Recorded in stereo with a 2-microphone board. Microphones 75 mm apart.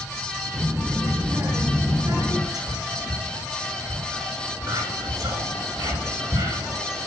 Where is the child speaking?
35° right (ahead or behind), 1.8 m; by 2.4 s 45° right (ahead or behind), 3 m.